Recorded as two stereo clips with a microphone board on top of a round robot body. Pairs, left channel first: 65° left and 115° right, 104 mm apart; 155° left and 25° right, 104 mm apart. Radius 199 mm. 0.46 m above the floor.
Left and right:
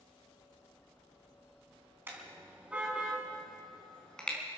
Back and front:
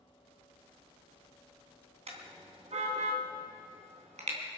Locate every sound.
2.1 s a car horn: 40° right, 3 m; by 4.4 s 10° right, 3.5 m